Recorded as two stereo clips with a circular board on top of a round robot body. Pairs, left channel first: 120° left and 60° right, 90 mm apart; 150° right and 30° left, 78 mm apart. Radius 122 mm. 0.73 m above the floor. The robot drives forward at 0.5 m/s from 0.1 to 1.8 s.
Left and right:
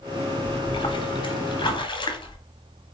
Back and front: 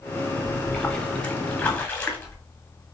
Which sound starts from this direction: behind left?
A splash, at 0.5 s.